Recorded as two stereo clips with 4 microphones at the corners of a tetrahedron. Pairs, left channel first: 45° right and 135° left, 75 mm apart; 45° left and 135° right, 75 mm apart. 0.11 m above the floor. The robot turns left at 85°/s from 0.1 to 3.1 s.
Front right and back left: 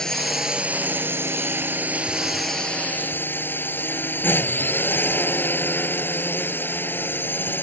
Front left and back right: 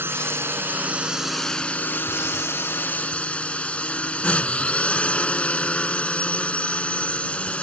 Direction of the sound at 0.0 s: 120° right.